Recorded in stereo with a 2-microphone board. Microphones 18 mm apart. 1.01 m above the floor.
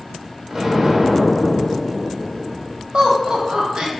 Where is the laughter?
55° right (ahead or behind), 0.9 m.